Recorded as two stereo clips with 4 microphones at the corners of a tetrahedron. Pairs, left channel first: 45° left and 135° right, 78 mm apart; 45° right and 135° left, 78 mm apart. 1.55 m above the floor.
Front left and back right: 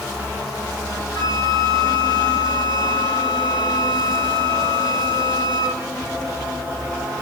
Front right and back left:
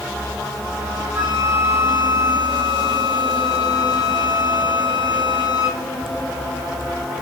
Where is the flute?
70° left, 9 m.